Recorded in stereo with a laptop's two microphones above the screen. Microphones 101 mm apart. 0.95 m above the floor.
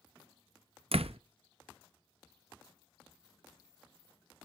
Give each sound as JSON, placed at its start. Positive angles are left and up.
{"t": 0.9, "sound": "a door slam", "side_deg": -75, "distance_m": 0.5}